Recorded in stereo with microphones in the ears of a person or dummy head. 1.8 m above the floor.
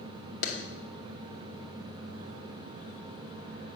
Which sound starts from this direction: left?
A clap, at 0.4 s.